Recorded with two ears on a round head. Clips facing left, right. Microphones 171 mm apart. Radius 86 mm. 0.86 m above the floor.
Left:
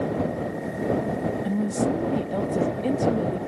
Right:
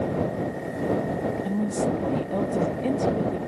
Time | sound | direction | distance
1.4 | a woman speaking | 5° left (ahead or behind) | ?